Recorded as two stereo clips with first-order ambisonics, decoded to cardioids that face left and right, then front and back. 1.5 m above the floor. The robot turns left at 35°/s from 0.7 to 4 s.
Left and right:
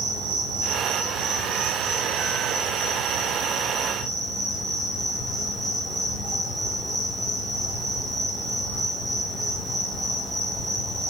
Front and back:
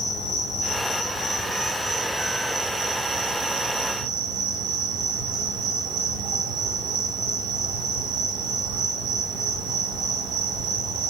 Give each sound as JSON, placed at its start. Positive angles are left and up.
{"t": 0.0, "sound": "an insect", "azimuth_deg": -60, "distance_m": 4.5}